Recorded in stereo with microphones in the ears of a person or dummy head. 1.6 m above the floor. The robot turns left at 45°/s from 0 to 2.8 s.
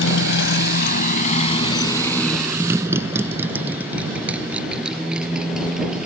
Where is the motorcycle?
65° left (ahead or behind); by 6.1 s 5° right (ahead or behind).